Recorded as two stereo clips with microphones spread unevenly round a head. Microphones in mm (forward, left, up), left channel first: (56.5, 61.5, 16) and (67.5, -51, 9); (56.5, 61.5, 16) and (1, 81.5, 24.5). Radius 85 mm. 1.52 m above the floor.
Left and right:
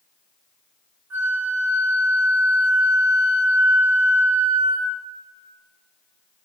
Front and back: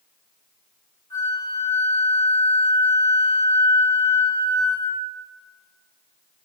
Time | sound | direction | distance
1.1 | a flute | 15° right | 2.0 m